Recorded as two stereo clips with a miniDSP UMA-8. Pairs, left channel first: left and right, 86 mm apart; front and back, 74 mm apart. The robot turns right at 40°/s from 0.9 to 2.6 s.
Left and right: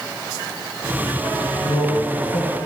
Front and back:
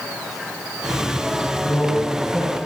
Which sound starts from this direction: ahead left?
A man speaking, at 1.6 s.